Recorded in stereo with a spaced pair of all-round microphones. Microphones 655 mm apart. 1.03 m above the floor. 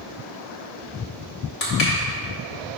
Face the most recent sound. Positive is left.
turn(degrees=60)  # may be behind; listen again after turning